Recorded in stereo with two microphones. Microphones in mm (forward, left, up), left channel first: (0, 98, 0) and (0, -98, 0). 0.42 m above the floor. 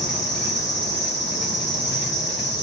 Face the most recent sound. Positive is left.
turn(degrees=65)  # may be behind; listen again after turning